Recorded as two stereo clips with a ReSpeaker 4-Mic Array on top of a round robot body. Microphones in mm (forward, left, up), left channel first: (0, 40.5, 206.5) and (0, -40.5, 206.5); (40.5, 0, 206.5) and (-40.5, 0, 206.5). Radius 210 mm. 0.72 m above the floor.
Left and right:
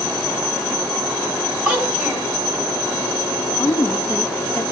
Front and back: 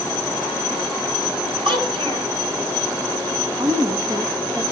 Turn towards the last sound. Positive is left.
turn(degrees=150)